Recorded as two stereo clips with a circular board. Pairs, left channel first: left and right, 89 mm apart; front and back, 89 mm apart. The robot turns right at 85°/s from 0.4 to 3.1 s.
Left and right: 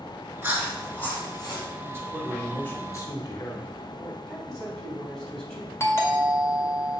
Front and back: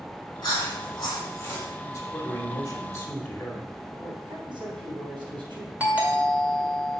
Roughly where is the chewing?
Ahead right.